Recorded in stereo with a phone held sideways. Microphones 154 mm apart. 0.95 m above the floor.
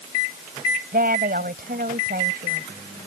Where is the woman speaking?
75° right (ahead or behind).